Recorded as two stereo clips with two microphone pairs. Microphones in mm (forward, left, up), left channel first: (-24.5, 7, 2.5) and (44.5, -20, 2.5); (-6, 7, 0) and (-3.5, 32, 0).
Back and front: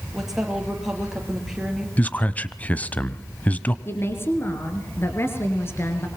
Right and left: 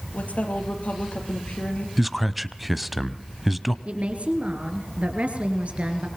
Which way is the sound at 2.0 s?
150° left.